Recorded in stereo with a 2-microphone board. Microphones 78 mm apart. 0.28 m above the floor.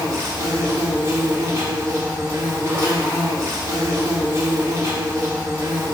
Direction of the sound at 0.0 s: 40° right (ahead or behind).